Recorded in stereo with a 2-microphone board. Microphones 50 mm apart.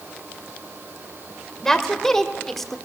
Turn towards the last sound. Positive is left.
turn(degrees=5)  # may be behind; listen again after turning